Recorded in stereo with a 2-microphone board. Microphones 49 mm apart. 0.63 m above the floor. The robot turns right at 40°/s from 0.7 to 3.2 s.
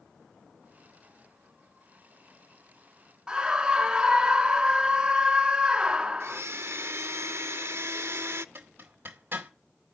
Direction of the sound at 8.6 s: 45° right (ahead or behind).